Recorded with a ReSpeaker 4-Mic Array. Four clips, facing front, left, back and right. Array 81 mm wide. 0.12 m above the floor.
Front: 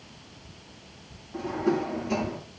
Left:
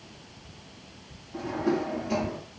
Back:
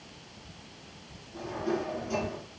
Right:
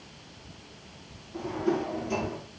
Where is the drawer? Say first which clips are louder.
Left 1 dB, front 5 dB; 40° left, 9 m.